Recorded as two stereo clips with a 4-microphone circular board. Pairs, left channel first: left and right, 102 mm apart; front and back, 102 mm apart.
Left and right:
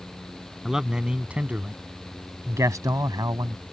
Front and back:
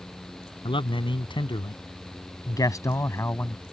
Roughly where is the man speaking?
Ahead.